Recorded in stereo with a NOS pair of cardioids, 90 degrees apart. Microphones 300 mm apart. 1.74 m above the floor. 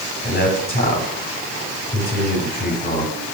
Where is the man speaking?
30° left, 6.5 m.